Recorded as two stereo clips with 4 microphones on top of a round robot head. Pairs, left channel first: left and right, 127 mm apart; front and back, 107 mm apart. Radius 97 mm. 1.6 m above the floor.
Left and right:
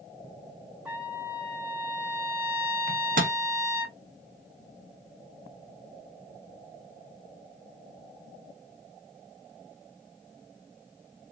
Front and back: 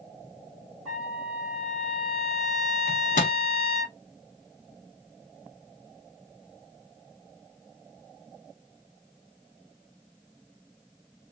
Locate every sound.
0.8 s a trumpet: 170° right, 3 m
2.9 s a microwave: 50° right, 0.6 m